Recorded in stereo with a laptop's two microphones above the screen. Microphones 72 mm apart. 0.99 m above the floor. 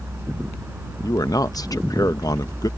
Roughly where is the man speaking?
Left.